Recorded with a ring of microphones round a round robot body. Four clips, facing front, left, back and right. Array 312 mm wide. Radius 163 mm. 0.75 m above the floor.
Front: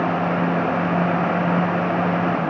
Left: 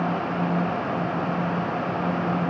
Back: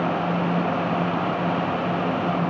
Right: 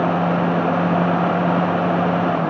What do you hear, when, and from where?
Only background noise.